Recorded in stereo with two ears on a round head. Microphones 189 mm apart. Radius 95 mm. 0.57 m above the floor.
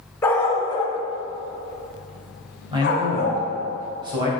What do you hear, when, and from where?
0.2 s a dog barking: 10° left (ahead or behind), 1.3 m; by 3.4 s 45° left (ahead or behind), 1.6 m
2.7 s a man speaking: 20° right (ahead or behind), 3 m